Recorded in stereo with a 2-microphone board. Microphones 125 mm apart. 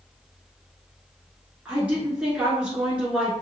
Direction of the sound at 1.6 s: 10° right (ahead or behind).